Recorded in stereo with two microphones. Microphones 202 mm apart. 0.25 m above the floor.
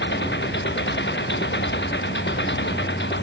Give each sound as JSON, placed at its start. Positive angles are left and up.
{"t": 0.0, "sound": "an engine running", "side_deg": 65}